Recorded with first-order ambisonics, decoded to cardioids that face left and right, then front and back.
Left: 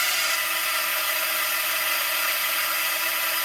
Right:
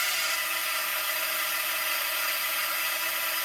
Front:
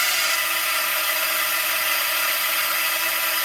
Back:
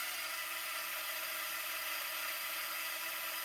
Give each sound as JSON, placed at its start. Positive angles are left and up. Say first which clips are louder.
{"t": 0.0, "sound": "a drone", "louder": "left 4 dB, front 19 dB", "azimuth_deg": 20}